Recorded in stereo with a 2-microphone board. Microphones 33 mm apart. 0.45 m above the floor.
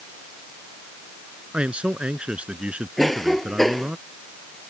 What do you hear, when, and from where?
1.5 s a man speaking: 35° right (ahead or behind)
3.0 s a cough: 5° left (ahead or behind)